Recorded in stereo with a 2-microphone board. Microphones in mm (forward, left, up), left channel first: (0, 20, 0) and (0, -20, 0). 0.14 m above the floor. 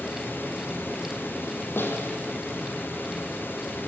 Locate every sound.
0.0 s running water: 65° left (ahead or behind), 4.5 m
1.8 s a snare drum: 75° left (ahead or behind), 4.5 m